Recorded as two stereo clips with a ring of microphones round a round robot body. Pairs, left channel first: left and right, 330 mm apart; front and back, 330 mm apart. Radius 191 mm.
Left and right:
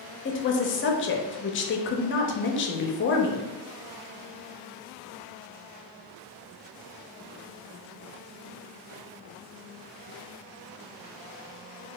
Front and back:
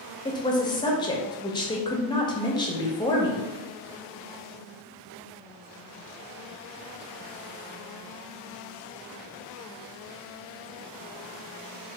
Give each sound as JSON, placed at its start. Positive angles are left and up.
{"t": 0.2, "sound": "a woman speaking", "azimuth_deg": 70, "distance_m": 0.6}